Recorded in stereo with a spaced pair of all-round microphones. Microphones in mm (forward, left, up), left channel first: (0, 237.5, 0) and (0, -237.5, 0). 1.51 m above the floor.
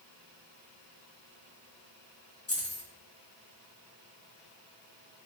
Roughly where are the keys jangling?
Left.